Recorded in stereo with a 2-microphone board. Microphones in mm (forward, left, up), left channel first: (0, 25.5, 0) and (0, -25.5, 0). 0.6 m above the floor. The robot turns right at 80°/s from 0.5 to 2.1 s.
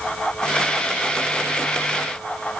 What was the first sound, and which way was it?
Only background noise.